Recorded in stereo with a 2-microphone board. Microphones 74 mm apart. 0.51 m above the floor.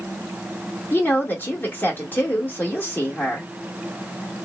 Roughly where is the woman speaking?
Left.